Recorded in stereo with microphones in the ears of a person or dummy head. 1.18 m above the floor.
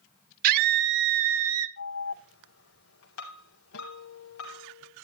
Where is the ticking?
No ticking in this recording.